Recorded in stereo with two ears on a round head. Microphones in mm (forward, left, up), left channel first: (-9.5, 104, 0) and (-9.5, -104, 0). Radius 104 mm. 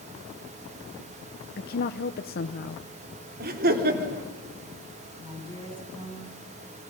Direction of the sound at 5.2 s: 20° right (ahead or behind).